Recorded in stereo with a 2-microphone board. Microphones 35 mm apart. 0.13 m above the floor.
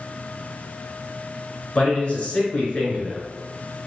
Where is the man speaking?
40° left (ahead or behind), 1.4 m.